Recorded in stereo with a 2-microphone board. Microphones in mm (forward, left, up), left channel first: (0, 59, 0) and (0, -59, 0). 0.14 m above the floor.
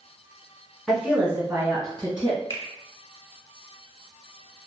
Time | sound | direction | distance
0.9 | a woman speaking | centre (ahead or behind) | 1.1 m
2.5 | a finger snap | 25° left (ahead or behind) | 1.1 m